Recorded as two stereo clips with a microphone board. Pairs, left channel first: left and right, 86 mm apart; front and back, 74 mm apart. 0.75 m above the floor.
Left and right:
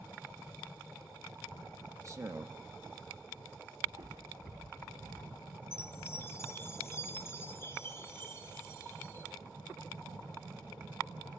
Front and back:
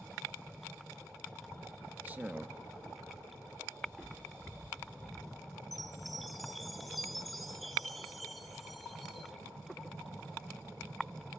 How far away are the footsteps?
About 2.5 m.